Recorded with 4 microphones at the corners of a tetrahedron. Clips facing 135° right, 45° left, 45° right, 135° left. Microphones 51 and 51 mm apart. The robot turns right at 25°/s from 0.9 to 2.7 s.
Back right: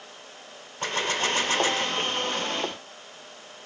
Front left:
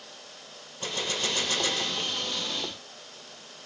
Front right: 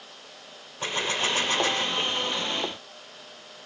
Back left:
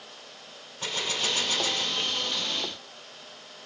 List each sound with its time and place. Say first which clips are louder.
0.8 s a gunshot: back right 5 dB, front right 3 dB; 105° right, 0.7 m; by 2.2 s 75° right, 0.7 m